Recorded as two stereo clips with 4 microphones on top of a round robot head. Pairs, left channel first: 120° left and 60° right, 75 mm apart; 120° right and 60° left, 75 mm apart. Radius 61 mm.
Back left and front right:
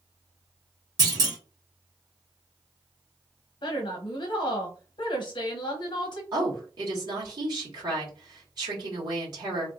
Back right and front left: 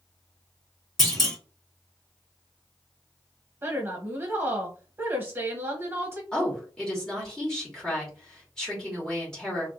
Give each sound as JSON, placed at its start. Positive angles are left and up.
{"t": 1.0, "sound": "a clunk", "azimuth_deg": -35, "distance_m": 2.0}
{"t": 3.6, "sound": "a woman speaking", "azimuth_deg": 115, "distance_m": 1.0}
{"t": 6.3, "sound": "a woman speaking", "azimuth_deg": -40, "distance_m": 2.0}